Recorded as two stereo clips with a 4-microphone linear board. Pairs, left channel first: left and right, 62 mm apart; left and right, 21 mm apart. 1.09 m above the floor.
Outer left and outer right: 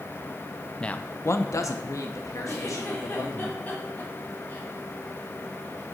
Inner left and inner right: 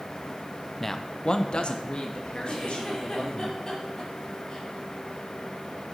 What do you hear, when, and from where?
0.8 s a man speaking: 15° left (ahead or behind), 0.6 m; by 3.5 s 60° left (ahead or behind), 3 m
2.5 s a giggle: 25° left (ahead or behind), 3.5 m